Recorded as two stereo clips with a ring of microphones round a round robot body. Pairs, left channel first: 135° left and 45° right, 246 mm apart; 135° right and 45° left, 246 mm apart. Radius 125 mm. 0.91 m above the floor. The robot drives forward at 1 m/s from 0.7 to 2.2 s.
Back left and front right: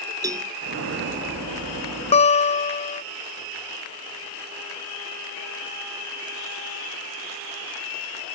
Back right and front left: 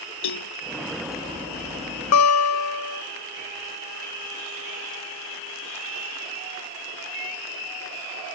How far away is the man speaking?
No man speaking in this recording.